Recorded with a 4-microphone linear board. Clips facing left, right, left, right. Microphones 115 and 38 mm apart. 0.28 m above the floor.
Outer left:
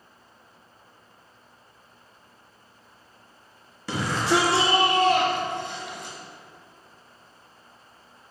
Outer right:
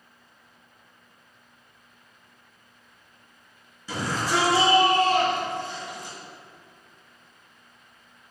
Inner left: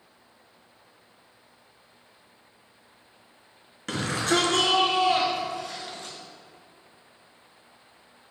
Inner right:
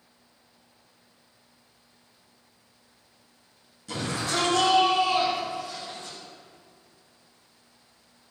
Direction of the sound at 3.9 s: 70° left (ahead or behind).